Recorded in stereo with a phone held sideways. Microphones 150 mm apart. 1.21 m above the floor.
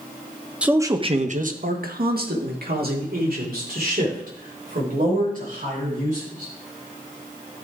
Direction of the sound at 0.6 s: 5° right (ahead or behind).